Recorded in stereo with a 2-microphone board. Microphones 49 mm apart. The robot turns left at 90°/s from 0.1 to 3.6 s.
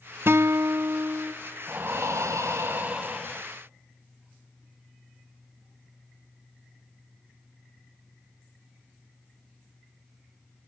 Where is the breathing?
35° right, 1.9 m; by 3.5 s 165° left, 1.9 m.